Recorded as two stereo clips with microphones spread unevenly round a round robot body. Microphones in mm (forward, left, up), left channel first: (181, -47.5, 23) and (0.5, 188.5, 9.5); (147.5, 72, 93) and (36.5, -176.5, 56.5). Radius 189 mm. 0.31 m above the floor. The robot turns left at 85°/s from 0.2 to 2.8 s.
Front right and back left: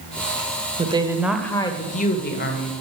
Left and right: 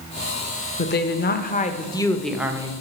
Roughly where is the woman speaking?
Left.